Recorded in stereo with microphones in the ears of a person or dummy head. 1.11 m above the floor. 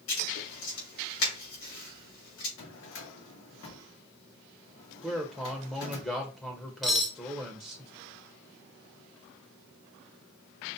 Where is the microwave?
I don't hear a microwave.